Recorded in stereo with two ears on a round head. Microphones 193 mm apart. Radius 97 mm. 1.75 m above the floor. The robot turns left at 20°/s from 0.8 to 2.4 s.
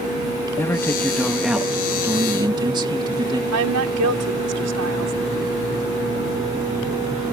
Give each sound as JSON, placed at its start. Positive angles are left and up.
{"t": 0.6, "sound": "a man speaking", "azimuth_deg": 10}
{"t": 3.5, "sound": "a woman speaking", "side_deg": -85}